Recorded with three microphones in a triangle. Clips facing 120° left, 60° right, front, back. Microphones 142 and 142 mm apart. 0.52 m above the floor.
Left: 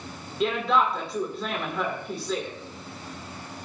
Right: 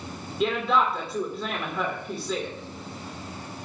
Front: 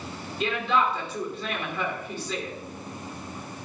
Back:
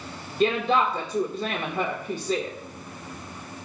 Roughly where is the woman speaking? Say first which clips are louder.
Even, back 3 dB; behind right.